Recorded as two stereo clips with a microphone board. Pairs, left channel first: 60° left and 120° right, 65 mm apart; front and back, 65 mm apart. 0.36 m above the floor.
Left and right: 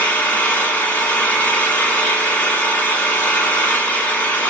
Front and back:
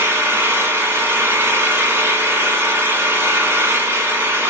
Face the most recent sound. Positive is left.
turn(degrees=125)